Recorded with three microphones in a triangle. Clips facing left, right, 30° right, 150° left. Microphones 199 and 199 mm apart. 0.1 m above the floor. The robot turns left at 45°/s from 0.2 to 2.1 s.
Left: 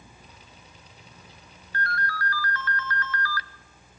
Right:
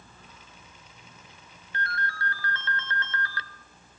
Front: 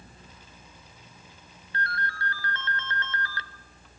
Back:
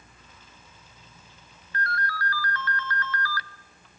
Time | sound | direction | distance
1.7 | a ringtone | 45° right | 0.7 m